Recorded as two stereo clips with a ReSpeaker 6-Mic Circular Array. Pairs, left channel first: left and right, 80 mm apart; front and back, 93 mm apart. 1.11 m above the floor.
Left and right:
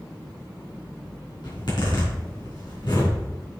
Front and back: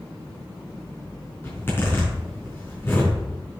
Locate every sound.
1.4 s a zipper: 65° left, 4 m